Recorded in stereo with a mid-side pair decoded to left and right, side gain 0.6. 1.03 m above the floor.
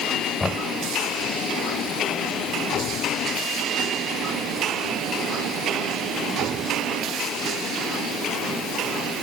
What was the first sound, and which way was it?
Knocking, 15° left.